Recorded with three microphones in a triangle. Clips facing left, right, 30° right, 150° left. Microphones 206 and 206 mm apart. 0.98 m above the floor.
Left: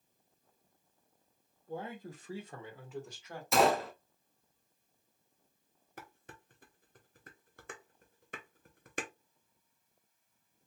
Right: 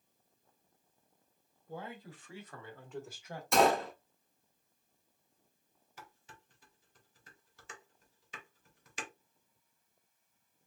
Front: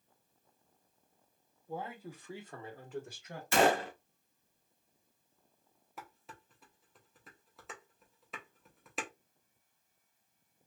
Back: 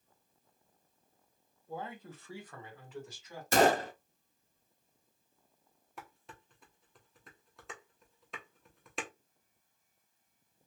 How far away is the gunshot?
About 0.8 m.